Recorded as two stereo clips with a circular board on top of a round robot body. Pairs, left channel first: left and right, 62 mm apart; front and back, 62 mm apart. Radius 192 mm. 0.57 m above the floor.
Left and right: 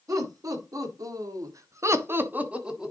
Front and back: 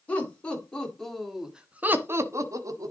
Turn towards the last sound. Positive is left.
turn(degrees=-175)